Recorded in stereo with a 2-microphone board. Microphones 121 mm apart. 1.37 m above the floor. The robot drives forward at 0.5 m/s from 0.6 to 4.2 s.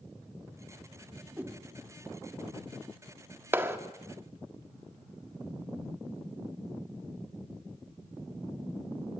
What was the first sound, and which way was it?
A whoosh, 15° right (ahead or behind).